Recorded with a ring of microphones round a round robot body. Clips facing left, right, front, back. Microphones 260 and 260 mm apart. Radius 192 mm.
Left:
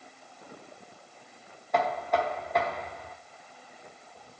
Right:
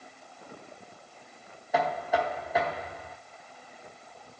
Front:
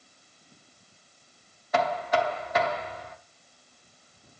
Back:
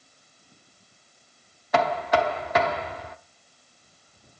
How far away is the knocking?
About 0.8 m.